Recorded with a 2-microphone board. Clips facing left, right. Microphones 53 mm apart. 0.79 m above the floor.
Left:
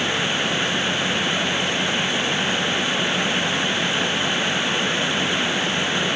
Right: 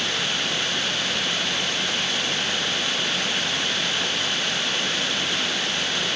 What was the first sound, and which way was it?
Only background noise.